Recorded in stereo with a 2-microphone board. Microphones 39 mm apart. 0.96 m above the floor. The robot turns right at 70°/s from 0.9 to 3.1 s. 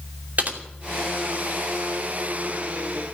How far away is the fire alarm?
No fire alarm in this recording.